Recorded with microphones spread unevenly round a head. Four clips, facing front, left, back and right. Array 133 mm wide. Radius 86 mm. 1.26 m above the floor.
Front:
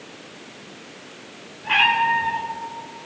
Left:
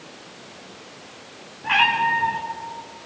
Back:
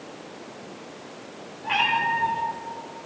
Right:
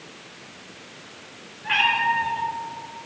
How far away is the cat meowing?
About 3 m.